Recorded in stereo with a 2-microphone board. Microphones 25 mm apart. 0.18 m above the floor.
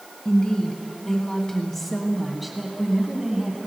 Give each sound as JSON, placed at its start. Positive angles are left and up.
{"t": 0.2, "sound": "a woman speaking", "side_deg": 35, "distance_m": 1.8}